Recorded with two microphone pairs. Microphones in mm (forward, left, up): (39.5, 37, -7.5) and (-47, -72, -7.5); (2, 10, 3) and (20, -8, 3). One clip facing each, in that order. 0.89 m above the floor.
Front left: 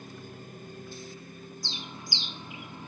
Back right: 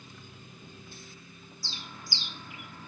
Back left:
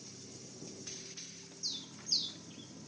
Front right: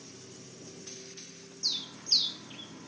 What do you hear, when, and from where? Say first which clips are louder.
0.0 s a lawn mower: front left 7 dB, front right 2 dB; 15° left; by 2.9 s 10° left
1.6 s a bird: front left 1 dB, front right 8 dB; 15° right